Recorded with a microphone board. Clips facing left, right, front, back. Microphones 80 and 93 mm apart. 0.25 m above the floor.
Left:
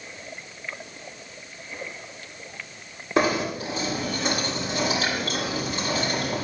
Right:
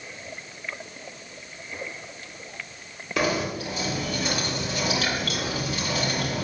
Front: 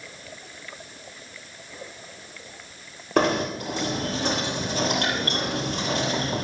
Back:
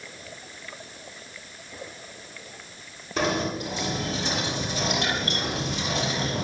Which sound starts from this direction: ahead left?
Knocking, at 3.2 s.